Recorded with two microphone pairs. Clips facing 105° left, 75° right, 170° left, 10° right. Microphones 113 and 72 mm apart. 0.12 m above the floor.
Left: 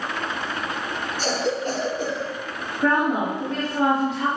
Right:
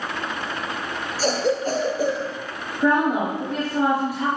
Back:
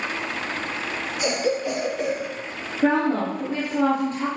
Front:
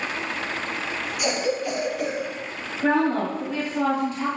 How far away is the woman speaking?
About 2.0 m.